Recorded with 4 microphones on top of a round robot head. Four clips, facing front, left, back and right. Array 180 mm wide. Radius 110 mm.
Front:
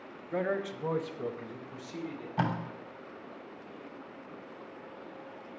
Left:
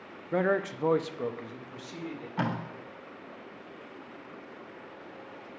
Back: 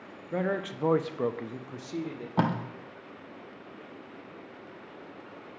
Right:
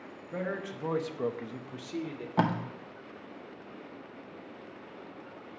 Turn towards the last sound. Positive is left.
turn(degrees=-145)